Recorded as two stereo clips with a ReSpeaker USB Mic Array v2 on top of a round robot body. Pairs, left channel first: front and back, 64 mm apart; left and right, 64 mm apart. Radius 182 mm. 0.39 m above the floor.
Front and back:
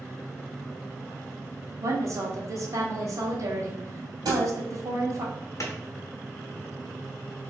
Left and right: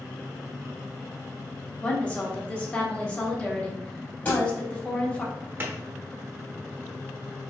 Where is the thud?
155° left, 2.0 m.